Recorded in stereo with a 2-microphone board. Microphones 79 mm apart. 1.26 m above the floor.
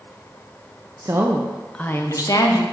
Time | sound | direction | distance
1.0 | a woman speaking | 40° right (ahead or behind) | 0.7 m